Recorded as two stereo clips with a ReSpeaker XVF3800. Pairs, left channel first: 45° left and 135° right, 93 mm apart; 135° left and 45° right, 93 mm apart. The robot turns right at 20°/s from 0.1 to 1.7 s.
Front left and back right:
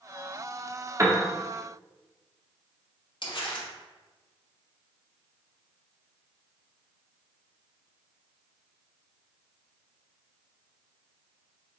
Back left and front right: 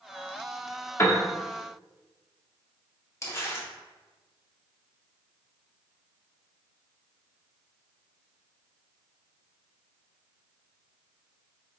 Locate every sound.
1.0 s a piano: 175° right, 0.7 m
3.2 s crumpling: 75° left, 1.0 m